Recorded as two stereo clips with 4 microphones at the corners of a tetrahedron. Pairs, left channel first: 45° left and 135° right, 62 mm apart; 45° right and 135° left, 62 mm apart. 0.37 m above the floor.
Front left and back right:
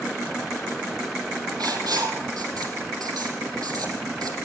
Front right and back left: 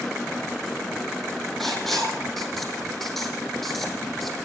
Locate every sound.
1.6 s writing: 135° right, 4.5 m